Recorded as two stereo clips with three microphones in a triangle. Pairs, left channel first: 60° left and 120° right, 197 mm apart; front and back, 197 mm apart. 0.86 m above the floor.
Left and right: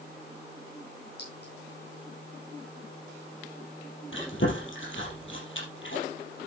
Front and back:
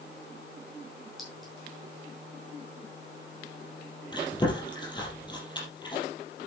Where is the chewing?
70° left, 4.5 m.